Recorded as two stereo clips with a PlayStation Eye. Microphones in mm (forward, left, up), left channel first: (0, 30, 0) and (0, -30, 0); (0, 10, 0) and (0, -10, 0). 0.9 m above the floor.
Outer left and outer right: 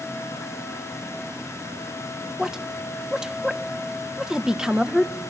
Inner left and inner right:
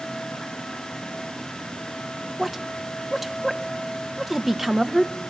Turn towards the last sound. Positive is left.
turn(degrees=-10)  # may be behind; listen again after turning